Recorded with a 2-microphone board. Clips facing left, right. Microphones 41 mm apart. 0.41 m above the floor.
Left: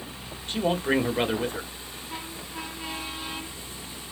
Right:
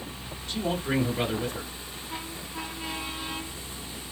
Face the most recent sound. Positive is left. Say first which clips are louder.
# left 4 dB
turn(degrees=35)  # may be behind; listen again after turning